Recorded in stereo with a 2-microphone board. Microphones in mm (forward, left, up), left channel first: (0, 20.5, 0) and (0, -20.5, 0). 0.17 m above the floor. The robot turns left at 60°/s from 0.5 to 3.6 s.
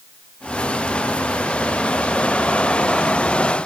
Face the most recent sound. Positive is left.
No sound to turn to.